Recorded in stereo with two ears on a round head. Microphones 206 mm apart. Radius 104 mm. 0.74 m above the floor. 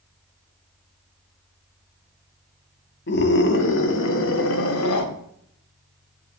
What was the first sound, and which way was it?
A scream, 50° left (ahead or behind).